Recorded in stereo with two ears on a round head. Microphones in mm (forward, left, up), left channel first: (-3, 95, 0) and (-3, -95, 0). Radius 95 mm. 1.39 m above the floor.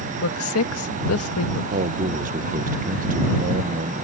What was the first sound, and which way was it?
A woman speaking, 75° left (ahead or behind).